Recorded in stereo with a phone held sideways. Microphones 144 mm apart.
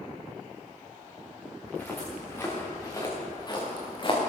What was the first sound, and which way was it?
Footsteps, 10° left (ahead or behind).